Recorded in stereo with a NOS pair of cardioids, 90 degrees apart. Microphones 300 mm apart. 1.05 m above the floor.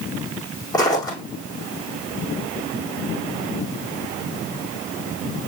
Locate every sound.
0.7 s footsteps: 15° left, 4 m